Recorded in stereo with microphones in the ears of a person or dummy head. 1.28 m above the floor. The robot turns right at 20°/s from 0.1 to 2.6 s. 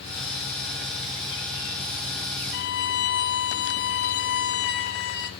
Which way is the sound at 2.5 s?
55° left (ahead or behind).